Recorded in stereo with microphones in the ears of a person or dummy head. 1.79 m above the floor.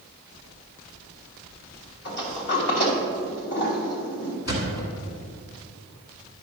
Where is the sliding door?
40° left (ahead or behind), 1.3 m.